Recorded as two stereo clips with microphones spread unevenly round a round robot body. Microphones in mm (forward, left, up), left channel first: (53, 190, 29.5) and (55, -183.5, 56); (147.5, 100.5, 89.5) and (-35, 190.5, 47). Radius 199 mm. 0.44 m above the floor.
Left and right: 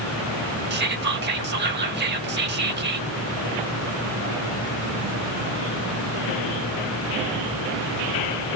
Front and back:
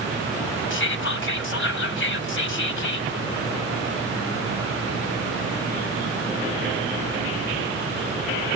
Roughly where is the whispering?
Ahead right.